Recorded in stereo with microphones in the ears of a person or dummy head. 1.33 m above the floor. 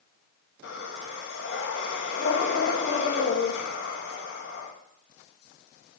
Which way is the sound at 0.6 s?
60° left (ahead or behind).